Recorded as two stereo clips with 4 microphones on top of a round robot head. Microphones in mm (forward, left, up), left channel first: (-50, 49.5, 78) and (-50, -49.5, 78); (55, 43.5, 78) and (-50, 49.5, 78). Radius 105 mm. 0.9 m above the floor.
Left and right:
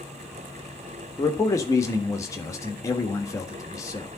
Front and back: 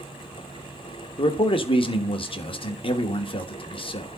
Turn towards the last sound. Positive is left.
turn(degrees=30)